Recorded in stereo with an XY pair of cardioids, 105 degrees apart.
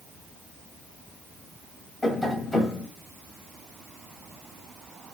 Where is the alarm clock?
No alarm clock in this recording.